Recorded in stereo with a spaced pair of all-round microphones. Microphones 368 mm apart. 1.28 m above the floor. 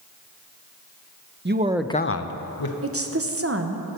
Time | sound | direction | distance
1.4 | a man speaking | 30° right (ahead or behind) | 0.7 m
2.8 | a woman speaking | 40° right (ahead or behind) | 0.9 m